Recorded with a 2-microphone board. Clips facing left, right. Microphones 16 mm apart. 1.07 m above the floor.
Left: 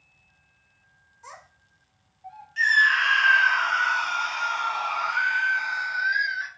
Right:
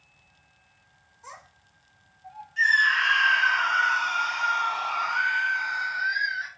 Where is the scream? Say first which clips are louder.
Left 1 dB; 30° left (ahead or behind), 0.8 m.